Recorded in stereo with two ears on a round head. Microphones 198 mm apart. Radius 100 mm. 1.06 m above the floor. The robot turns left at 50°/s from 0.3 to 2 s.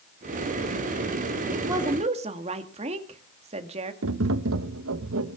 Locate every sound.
1.5 s a woman speaking: 5° right (ahead or behind), 2 m; by 3.9 s 30° right (ahead or behind), 2 m
4.0 s tapping: 70° right (ahead or behind), 1.2 m